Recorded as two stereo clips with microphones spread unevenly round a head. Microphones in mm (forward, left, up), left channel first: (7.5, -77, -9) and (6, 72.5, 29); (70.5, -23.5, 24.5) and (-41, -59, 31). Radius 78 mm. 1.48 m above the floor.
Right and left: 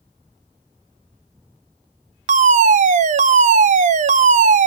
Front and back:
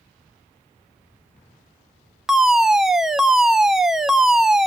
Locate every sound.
2.3 s a fire alarm: 110° left, 0.7 m